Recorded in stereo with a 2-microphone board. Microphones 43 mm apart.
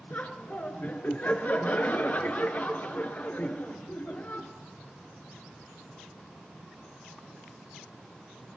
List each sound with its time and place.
0.1 s laughter: 40° left (ahead or behind), 1.6 m